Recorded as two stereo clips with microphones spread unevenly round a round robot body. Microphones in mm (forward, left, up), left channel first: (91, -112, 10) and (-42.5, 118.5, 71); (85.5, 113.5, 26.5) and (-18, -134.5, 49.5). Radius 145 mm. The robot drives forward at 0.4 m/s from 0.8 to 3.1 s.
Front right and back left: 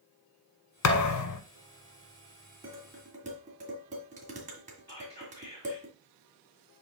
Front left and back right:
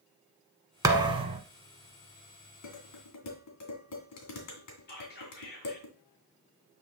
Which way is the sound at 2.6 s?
50° left.